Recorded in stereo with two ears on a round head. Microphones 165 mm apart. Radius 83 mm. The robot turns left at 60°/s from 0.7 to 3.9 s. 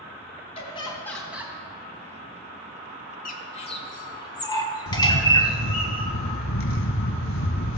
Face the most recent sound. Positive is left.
turn(degrees=80)